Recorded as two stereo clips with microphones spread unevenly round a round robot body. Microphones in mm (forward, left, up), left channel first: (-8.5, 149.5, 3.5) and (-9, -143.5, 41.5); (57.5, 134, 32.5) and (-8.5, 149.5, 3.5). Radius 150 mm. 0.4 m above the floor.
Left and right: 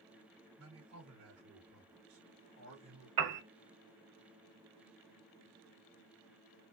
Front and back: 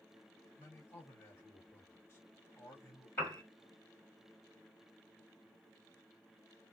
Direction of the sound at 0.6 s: 100° right.